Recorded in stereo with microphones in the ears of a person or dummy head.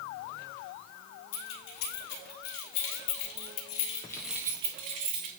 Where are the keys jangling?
80° left, 3 m; by 5.3 s 50° right (ahead or behind), 1.5 m.